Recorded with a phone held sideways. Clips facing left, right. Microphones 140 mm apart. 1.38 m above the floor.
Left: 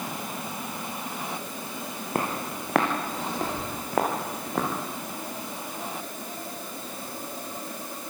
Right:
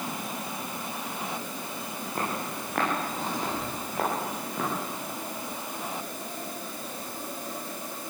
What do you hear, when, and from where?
2.1 s footsteps: 75° left (ahead or behind), 6.5 m; by 4.7 s 80° left, 8.5 m